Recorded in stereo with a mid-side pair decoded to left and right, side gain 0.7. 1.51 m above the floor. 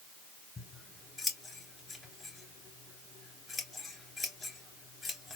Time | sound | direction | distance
0.6 | scissors | 20° left | 2 m